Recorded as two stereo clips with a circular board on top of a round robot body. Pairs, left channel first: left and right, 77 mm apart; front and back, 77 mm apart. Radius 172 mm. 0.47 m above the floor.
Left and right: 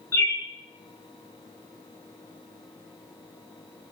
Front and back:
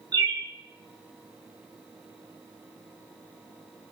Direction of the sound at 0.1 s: 150° left.